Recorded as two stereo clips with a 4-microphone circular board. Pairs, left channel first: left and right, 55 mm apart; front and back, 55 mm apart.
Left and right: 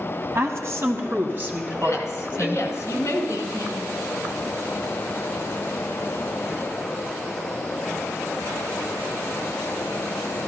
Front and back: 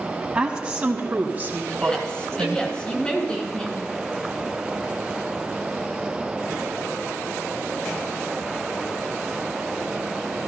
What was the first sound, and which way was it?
A woman speaking, 110° right.